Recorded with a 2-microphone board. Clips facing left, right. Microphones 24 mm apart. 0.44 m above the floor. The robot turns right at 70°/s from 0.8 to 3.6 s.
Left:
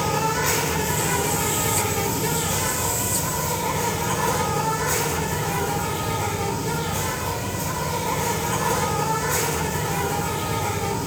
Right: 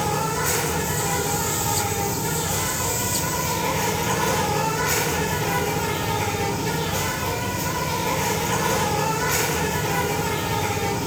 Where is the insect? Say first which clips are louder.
Left 1 dB; 35° left, 2.5 m; by 11.1 s 130° right, 2.5 m.